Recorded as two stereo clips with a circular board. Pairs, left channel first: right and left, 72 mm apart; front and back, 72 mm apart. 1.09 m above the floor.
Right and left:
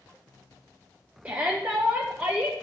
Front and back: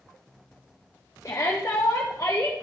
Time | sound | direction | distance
1.2 | a shout | 25° left | 1.0 m